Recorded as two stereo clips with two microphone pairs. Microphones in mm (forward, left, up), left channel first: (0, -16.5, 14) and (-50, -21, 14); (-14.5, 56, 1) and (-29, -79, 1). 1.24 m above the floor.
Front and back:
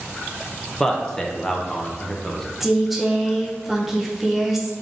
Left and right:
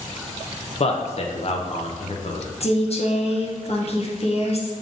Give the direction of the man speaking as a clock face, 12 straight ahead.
9 o'clock.